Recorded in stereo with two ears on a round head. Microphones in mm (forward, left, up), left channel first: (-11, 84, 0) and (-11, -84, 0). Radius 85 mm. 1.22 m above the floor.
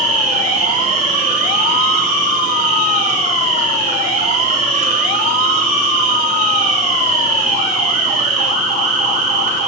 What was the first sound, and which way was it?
An insect, 40° right (ahead or behind).